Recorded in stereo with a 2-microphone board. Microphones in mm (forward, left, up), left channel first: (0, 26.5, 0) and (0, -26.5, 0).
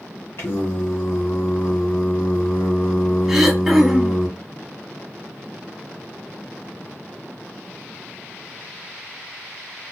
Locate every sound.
0.4 s singing: 60° left (ahead or behind), 1.1 m
3.3 s throat clearing: 5° right (ahead or behind), 0.7 m